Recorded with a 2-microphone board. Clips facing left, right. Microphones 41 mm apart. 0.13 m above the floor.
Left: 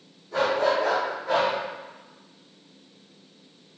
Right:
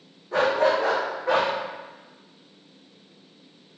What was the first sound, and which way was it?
A dog barking, 40° right (ahead or behind).